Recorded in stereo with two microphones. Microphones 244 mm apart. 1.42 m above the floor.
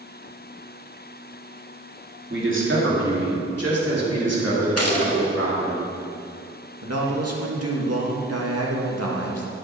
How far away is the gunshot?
About 2.0 m.